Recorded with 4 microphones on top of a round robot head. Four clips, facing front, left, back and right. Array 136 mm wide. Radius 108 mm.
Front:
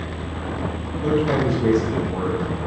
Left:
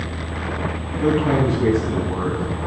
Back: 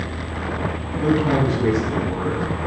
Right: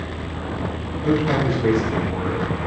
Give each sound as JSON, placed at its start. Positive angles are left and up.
{"t": 1.0, "sound": "a man speaking", "azimuth_deg": 120, "distance_m": 6.0}